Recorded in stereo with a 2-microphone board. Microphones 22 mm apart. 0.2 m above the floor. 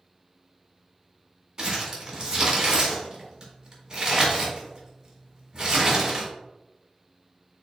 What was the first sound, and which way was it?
Crumpling, 35° right (ahead or behind).